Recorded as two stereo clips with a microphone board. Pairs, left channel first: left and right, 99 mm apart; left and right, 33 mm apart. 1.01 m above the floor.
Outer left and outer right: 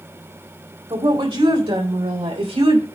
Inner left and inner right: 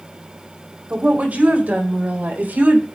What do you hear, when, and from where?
0.9 s a woman speaking: 60° right (ahead or behind), 4 m; by 2.8 s 85° right, 2.5 m